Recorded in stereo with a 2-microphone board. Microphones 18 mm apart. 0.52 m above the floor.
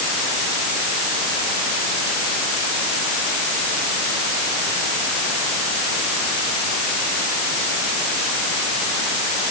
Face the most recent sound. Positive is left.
No sound to turn to.